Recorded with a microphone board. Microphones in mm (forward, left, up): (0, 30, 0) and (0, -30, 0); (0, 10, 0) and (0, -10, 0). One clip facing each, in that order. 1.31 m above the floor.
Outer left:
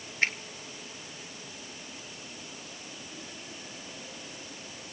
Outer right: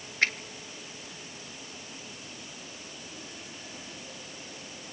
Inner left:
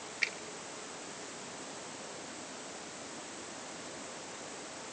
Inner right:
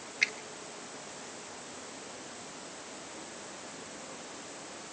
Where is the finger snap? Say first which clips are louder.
Outer right 1 dB, inner right 4 dB; 85° right, 3.5 m.